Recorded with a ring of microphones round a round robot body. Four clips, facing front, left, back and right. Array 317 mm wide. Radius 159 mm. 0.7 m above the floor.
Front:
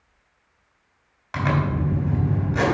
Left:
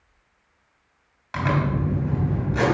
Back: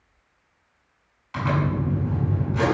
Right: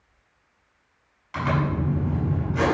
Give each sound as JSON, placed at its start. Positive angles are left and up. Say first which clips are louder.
{"t": 1.3, "sound": "a zipper", "louder": "left 1 dB, front 1 dB", "azimuth_deg": 25, "distance_m": 3.5}